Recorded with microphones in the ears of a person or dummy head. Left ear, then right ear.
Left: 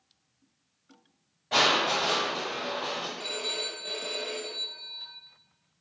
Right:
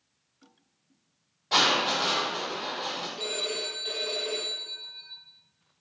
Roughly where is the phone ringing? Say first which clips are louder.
Right 1 dB; centre.